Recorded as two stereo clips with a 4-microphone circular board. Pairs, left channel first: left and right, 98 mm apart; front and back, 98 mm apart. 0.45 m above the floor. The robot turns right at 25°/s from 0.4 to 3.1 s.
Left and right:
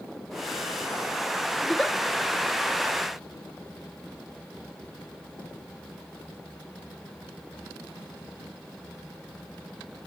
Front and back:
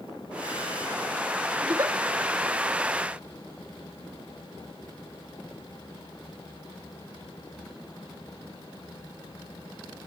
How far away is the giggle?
About 1.3 m.